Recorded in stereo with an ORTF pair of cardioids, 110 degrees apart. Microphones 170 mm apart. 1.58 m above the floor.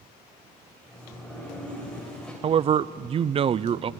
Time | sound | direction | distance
0.9 | a sliding door | 5° left | 7 m
2.4 | a man speaking | 35° right | 0.5 m